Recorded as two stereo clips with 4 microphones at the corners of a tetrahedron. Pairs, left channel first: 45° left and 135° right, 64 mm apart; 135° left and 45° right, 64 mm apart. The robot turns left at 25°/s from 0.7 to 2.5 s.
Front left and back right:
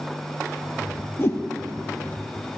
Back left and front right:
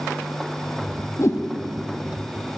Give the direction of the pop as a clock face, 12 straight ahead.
I don't hear a pop.